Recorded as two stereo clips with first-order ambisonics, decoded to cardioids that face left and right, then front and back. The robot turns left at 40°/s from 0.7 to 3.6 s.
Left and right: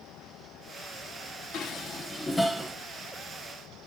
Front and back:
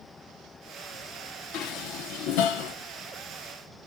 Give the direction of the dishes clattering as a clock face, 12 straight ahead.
11 o'clock.